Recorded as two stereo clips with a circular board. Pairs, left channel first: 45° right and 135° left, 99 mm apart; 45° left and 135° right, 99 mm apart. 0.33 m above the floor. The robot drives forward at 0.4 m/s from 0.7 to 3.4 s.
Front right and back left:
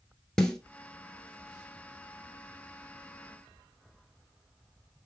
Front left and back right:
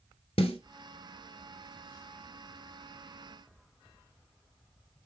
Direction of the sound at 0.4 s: 40° left.